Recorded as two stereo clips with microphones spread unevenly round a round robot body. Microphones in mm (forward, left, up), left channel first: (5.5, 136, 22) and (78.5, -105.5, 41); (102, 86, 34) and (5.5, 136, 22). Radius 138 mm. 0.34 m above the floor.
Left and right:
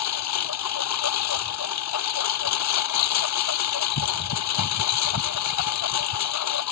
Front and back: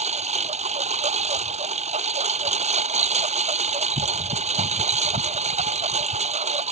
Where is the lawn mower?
140° left.